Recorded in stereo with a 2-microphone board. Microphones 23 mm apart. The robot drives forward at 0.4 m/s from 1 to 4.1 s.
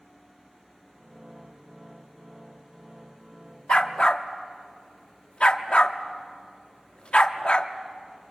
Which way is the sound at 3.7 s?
40° left (ahead or behind).